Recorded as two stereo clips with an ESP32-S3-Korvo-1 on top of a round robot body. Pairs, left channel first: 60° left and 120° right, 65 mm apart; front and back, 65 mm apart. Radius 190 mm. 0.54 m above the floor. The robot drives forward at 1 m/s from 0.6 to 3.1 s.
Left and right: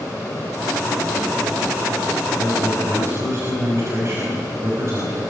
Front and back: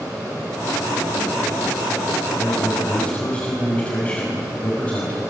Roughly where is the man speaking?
Ahead right.